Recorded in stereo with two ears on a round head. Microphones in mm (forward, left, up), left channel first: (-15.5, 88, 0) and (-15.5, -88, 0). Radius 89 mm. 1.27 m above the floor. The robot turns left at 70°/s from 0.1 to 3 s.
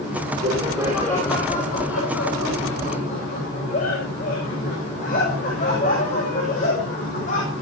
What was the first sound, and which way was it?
Laughter, 140° right.